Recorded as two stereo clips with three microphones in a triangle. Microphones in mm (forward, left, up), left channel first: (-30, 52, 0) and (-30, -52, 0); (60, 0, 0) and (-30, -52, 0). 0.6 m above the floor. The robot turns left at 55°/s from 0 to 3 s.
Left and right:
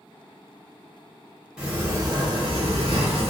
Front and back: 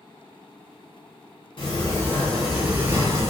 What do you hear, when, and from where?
1.6 s a sliding door: 10° right, 0.8 m; by 3.3 s 90° right, 0.8 m